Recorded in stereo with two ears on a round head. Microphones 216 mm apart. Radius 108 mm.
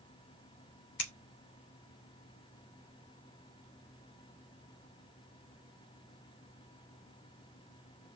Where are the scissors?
50° left (ahead or behind), 3 m.